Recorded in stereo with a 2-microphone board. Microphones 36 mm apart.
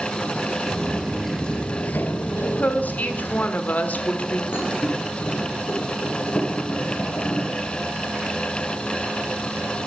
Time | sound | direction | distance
0.7 | footsteps | 15° right (ahead or behind) | 1.0 m
2.4 | a woman speaking | 50° left (ahead or behind) | 1.3 m
4.5 | a thud | 85° left | 4 m